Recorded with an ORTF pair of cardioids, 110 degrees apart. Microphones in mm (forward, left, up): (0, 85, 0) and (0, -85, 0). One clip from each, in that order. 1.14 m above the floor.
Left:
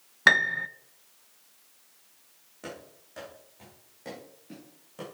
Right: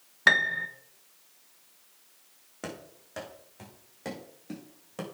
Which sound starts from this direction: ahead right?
Running footsteps, at 2.6 s.